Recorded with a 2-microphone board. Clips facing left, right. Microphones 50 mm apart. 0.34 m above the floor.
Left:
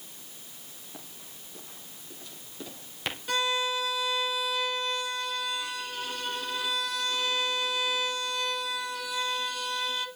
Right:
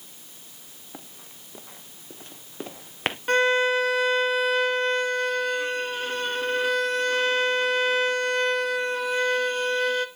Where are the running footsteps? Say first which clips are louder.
Right 4 dB; 35° right (ahead or behind), 2.5 m; by 3.2 s 50° right (ahead or behind), 1.5 m.